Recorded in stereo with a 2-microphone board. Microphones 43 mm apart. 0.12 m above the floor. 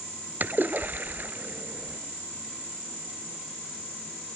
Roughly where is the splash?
Right.